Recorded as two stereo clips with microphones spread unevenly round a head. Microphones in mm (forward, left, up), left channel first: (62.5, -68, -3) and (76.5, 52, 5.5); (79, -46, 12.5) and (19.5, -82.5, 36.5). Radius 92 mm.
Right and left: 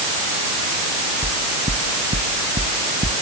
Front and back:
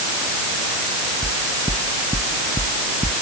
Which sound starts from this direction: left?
Knocking, at 1.2 s.